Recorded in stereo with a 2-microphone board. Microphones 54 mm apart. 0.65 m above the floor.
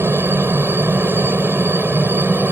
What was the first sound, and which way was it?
A helicopter, 50° right (ahead or behind).